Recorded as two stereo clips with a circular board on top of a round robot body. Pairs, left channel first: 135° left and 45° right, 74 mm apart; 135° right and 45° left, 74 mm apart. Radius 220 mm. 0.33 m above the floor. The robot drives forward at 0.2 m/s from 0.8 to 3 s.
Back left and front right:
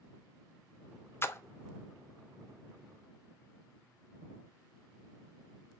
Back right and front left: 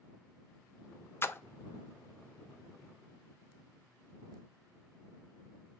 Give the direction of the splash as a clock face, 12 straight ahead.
6 o'clock.